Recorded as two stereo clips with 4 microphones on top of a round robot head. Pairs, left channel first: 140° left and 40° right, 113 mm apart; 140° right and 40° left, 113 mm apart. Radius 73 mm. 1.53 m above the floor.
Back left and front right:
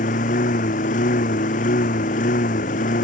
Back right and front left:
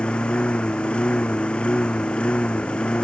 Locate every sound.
0.0 s a lawn mower: 135° left